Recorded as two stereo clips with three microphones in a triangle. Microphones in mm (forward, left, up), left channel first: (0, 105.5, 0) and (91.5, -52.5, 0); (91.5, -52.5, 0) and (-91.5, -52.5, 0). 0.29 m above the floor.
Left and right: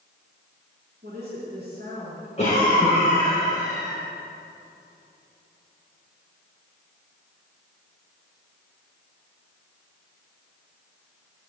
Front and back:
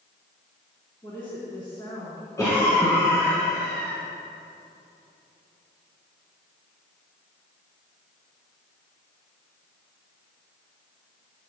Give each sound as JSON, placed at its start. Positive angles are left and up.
{"t": 1.0, "sound": "a woman speaking", "azimuth_deg": -65, "distance_m": 3.0}
{"t": 2.4, "sound": "a cough", "azimuth_deg": 70, "distance_m": 3.5}